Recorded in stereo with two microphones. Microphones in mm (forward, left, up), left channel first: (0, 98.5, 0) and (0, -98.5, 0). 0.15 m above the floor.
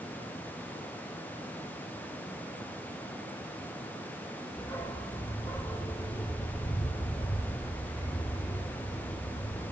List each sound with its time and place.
4.6 s a dog barking: 20° left (ahead or behind), 3.5 m